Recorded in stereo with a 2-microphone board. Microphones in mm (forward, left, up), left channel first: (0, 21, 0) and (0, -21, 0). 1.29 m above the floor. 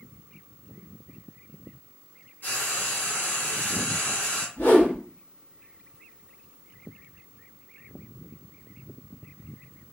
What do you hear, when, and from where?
2.4 s frying: 55° left (ahead or behind), 1.1 m
4.6 s a whoosh: 50° left (ahead or behind), 0.8 m